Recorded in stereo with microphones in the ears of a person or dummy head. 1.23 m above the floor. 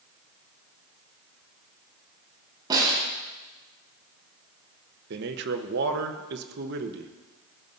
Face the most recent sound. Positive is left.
turn(degrees=-55)  # may be behind; listen again after turning